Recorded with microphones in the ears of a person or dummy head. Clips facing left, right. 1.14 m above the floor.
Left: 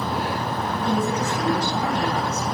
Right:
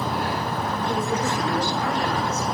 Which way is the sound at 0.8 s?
85° left.